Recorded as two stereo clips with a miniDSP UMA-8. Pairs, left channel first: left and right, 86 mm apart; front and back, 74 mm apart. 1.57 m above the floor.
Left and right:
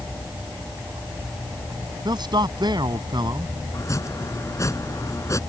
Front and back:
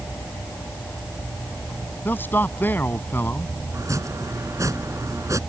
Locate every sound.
2.0 s a man speaking: 60° right
3.7 s chopping: 140° left